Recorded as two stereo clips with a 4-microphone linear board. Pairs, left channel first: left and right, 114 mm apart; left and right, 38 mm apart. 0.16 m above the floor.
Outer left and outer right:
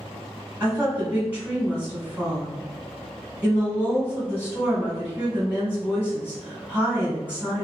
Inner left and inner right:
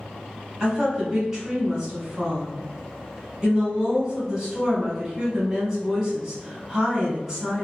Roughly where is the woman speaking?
Centre.